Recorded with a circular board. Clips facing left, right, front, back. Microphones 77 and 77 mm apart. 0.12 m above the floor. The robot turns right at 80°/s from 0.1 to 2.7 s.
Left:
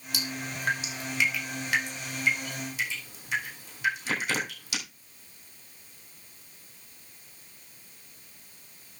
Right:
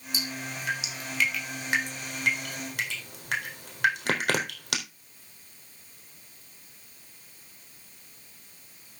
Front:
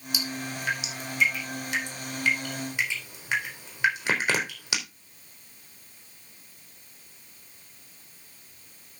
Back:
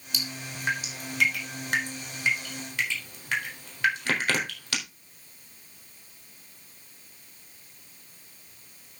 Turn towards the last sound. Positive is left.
turn(degrees=-75)